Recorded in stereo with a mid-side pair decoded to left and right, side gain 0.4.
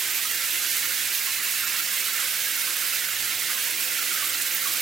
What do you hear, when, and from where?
0.0 s running water: 55° right, 0.8 m